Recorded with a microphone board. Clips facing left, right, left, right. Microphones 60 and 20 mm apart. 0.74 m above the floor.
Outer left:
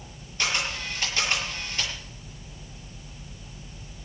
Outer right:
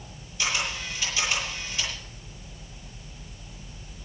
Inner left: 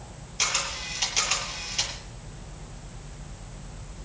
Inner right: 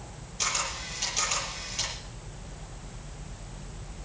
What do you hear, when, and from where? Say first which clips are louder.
0.4 s a camera shutter: outer left 1 dB, inner left 3 dB; 50° left (ahead or behind), 9 m